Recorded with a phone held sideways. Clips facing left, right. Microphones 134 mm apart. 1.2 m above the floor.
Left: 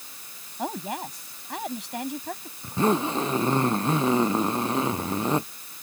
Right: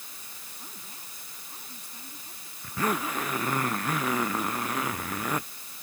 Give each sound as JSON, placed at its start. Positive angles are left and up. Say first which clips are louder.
{"t": 0.6, "sound": "a woman speaking", "louder": "left 22 dB", "side_deg": 85}
{"t": 2.6, "sound": "a zipper", "louder": "left 6 dB", "side_deg": 25}